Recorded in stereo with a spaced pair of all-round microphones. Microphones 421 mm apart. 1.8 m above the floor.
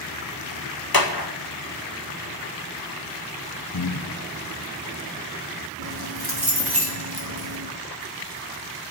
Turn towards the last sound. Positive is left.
turn(degrees=-60)  # may be behind; listen again after turning